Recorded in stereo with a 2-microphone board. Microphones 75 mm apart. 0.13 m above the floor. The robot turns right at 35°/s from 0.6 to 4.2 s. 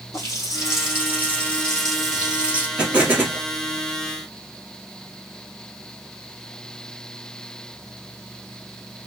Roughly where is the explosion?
Centre.